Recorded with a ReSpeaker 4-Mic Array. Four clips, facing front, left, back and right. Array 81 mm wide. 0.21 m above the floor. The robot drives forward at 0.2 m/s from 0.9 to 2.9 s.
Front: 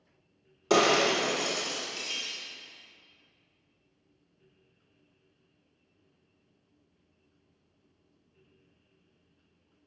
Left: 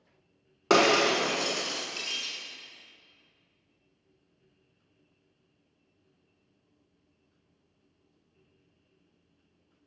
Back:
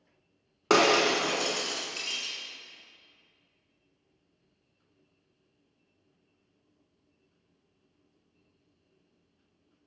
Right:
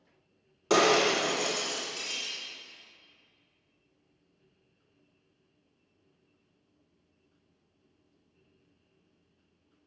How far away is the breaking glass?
About 1.3 m.